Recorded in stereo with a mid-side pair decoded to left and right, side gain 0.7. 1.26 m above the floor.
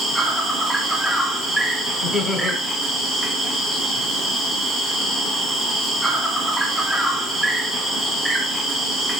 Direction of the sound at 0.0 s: 5° right.